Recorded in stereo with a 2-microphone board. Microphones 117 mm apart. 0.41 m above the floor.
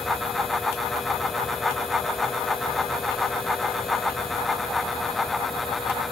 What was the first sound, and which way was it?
Only background noise.